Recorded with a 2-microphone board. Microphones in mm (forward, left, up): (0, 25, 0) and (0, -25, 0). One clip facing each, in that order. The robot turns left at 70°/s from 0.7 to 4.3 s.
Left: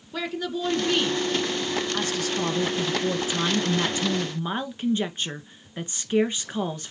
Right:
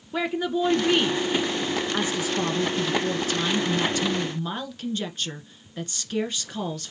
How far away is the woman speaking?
About 1.1 m.